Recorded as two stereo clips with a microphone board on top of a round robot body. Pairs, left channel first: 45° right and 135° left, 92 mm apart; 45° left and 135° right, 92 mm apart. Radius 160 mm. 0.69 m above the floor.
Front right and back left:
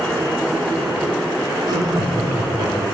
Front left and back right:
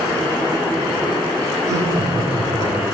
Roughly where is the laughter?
Behind.